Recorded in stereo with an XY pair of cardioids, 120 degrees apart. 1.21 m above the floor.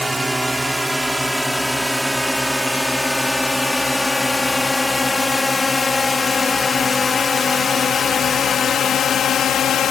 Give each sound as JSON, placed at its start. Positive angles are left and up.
{"t": 0.0, "sound": "a drone", "azimuth_deg": -10}